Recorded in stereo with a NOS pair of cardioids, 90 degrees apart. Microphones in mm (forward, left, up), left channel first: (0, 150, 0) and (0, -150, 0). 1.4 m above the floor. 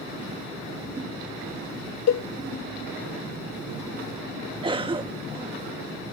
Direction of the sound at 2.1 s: 60° left.